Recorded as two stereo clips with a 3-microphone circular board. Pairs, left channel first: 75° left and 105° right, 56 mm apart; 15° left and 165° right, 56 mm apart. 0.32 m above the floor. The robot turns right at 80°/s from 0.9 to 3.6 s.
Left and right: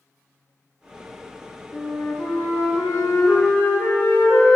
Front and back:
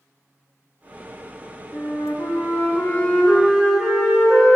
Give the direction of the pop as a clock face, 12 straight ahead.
No pop in this recording.